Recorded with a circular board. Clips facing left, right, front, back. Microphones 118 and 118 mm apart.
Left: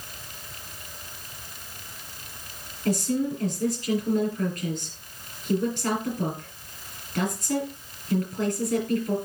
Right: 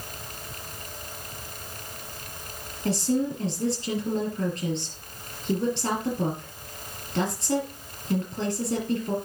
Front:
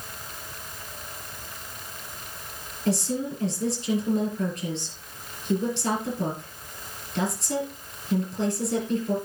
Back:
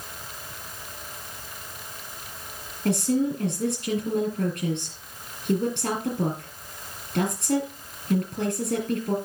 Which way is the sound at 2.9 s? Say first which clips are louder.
Even, back 4 dB; 150° right.